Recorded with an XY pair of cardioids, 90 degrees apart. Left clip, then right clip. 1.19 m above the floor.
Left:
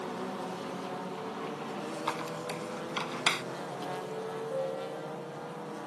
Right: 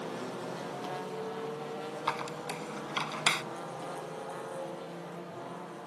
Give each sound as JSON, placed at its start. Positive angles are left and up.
{"t": 2.1, "sound": "a squeak", "azimuth_deg": -25}
{"t": 4.5, "sound": "a piano", "azimuth_deg": 55}